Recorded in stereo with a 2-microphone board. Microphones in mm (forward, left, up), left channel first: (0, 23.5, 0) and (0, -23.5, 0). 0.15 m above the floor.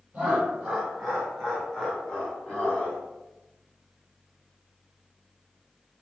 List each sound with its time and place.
0.1 s laughter: 15° right (ahead or behind), 1.5 m; by 3.0 s 35° left (ahead or behind), 1.3 m